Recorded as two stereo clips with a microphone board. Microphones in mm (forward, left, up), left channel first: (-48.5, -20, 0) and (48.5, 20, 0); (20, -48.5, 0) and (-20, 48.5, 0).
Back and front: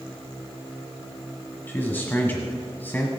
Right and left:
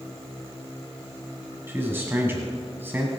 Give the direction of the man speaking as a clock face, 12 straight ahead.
7 o'clock.